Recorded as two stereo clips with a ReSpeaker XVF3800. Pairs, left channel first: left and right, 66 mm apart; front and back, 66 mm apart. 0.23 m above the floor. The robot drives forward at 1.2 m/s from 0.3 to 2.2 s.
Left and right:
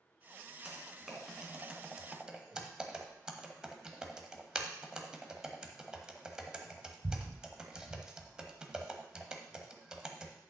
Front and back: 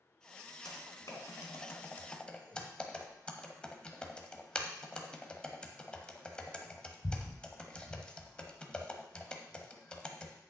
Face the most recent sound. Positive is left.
turn(degrees=-35)